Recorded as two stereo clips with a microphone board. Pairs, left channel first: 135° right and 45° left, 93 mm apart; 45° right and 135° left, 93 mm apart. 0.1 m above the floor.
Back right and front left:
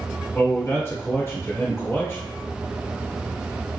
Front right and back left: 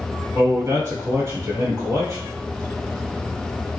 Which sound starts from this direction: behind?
A man speaking, at 0.3 s.